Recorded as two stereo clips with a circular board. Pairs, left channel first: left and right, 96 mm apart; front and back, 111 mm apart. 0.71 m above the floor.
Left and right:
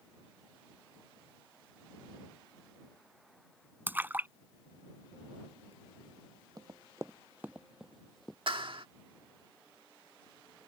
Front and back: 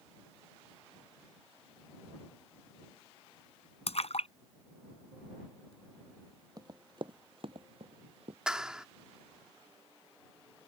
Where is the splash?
20° right.